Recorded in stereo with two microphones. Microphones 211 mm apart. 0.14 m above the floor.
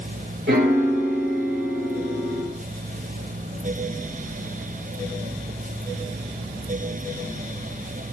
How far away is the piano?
About 0.6 m.